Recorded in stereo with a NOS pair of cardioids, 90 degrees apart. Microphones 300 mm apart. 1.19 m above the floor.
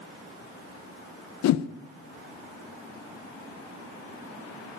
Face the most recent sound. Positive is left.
turn(degrees=65)